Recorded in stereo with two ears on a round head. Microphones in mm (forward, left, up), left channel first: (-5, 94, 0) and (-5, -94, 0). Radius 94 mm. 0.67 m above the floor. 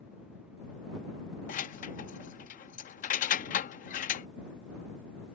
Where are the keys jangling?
40° left (ahead or behind).